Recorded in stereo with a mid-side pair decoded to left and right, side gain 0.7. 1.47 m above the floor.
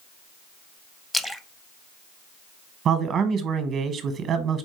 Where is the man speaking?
40° right, 0.9 m.